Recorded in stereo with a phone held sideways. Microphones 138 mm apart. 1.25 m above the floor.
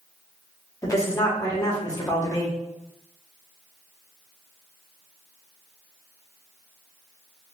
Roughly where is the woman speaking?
Left.